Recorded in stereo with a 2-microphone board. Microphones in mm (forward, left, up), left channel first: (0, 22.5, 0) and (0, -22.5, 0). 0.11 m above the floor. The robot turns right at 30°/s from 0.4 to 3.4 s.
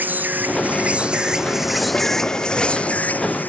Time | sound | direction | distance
0.0 | an insect | 45° right | ?